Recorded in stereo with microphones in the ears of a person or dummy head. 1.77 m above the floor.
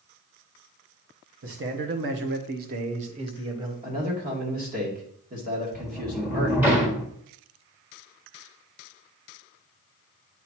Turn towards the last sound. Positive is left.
turn(degrees=-10)  # may be behind; listen again after turning